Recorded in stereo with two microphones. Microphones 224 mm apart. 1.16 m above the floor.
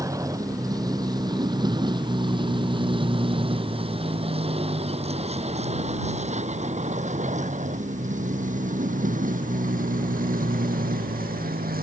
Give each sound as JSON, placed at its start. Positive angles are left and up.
{"t": 0.0, "sound": "a vehicle", "side_deg": -15}